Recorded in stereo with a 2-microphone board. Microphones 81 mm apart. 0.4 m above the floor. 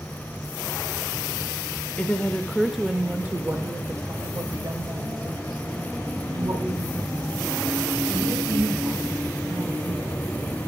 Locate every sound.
2.0 s a woman speaking: 20° left (ahead or behind), 1.1 m; by 10.1 s 75° right (ahead or behind), 4.5 m